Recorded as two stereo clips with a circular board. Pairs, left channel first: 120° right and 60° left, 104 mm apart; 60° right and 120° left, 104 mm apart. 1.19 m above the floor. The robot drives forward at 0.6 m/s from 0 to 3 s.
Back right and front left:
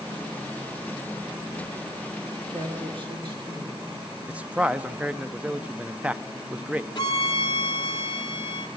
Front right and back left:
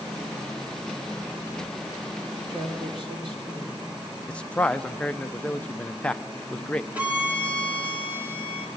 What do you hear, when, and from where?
2.5 s a man speaking: 80° left, 3 m; by 3.9 s 90° left, 3 m
4.3 s a man speaking: 5° left, 0.6 m
7.0 s a violin: 165° right, 2 m